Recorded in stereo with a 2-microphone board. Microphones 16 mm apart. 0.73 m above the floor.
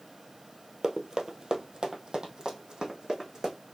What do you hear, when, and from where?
0.8 s running footsteps: 40° right (ahead or behind), 0.9 m; by 3.5 s 50° right (ahead or behind), 2.5 m